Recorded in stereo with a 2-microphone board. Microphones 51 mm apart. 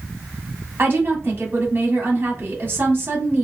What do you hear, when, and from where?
0.8 s a woman speaking: 45° right (ahead or behind), 1.6 m